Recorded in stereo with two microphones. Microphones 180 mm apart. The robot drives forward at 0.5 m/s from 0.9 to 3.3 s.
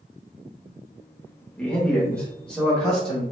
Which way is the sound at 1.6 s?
5° left (ahead or behind).